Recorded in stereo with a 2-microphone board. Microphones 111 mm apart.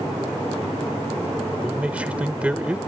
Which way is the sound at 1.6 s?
10° right (ahead or behind).